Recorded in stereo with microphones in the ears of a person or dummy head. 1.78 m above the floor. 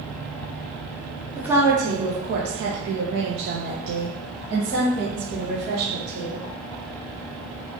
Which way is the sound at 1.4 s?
15° right (ahead or behind).